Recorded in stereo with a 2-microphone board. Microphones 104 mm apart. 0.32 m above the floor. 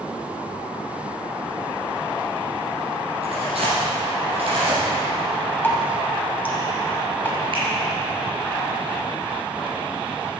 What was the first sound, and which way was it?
Tearing paper, 70° right (ahead or behind).